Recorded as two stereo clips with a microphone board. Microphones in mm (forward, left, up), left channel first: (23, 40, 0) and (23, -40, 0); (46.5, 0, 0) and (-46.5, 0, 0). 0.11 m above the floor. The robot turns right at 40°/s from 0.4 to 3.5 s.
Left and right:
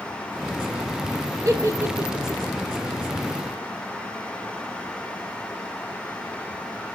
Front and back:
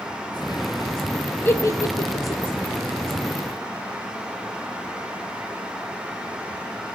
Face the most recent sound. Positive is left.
turn(degrees=25)